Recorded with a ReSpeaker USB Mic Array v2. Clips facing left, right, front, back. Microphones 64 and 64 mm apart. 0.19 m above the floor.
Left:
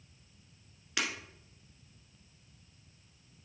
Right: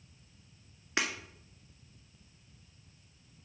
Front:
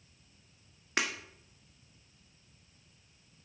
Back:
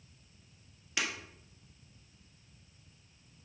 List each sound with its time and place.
1.0 s breaking glass: 35° right, 1.5 m